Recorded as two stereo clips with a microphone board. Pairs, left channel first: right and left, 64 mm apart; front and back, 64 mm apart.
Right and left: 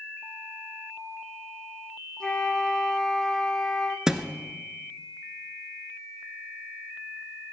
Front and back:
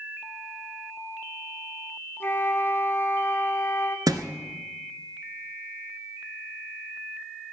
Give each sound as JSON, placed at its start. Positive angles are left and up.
{"t": 2.2, "sound": "a flute", "azimuth_deg": -15, "distance_m": 1.8}
{"t": 4.1, "sound": "a thud", "azimuth_deg": 170, "distance_m": 1.3}